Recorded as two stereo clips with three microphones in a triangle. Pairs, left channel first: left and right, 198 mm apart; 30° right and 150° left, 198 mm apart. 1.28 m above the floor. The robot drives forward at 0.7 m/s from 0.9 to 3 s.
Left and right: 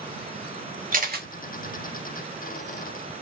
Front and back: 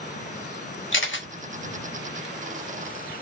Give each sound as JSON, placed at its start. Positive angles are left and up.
{"t": 0.9, "sound": "a camera shutter", "azimuth_deg": -40, "distance_m": 0.9}